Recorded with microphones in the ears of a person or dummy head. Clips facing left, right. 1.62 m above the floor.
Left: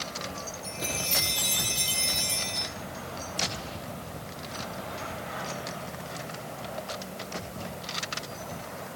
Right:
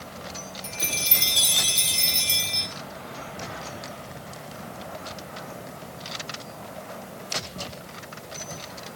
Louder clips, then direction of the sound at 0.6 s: Left 2 dB; 45° right (ahead or behind).